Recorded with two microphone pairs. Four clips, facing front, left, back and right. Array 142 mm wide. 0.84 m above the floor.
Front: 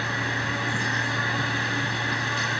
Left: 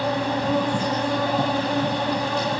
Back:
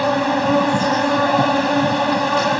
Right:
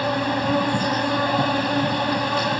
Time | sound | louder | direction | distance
0.0 | an insect | right 1 dB, back 12 dB | 175° right | ?